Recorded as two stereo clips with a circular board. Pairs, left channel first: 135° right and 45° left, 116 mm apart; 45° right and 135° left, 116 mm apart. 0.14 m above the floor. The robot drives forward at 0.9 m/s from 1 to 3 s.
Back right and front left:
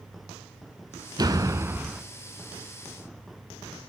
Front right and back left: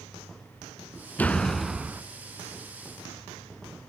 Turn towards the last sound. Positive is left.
turn(degrees=165)